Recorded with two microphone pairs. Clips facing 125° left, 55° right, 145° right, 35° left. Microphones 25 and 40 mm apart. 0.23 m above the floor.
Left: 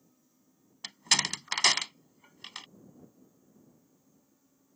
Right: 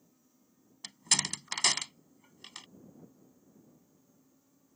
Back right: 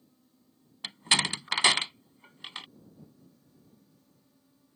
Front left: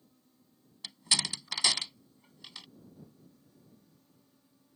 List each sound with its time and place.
0.8 s a door slam: 175° right